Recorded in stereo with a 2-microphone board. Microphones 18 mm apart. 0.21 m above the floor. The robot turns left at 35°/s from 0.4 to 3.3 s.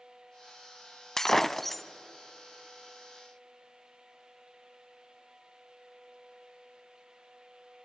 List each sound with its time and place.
1.2 s breaking glass: 25° left (ahead or behind), 0.6 m; by 1.8 s 10° left (ahead or behind), 0.6 m